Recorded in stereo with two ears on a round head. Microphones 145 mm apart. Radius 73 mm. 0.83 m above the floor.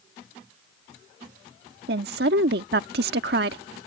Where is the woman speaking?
65° right (ahead or behind).